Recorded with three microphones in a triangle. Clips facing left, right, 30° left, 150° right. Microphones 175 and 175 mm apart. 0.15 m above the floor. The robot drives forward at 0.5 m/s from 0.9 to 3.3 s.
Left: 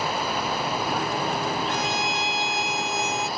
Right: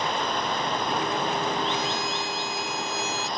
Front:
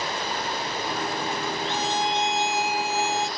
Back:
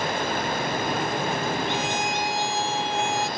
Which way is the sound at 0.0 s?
175° left.